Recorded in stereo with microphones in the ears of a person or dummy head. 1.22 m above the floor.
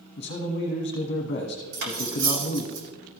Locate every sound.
0.2 s a man speaking: 45° left (ahead or behind), 1.3 m
1.7 s cutlery clinking: 60° right (ahead or behind), 2 m